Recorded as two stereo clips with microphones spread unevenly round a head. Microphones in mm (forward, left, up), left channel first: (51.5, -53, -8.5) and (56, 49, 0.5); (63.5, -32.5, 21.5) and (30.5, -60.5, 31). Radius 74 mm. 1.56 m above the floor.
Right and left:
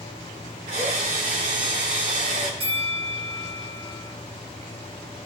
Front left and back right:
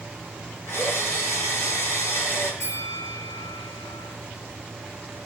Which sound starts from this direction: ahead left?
A bell, at 2.6 s.